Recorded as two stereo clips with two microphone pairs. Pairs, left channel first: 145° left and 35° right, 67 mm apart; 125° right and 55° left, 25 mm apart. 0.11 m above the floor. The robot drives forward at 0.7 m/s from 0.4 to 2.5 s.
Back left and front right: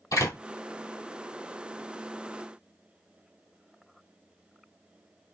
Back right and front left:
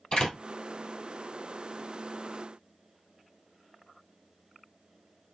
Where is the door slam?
175° left, 2.5 m.